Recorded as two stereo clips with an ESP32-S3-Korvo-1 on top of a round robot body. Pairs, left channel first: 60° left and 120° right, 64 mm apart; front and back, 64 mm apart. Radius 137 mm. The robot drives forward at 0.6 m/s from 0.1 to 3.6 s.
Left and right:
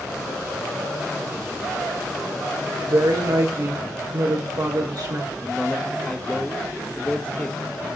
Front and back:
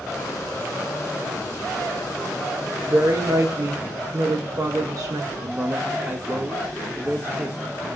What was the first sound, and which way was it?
A woman speaking, 135° right.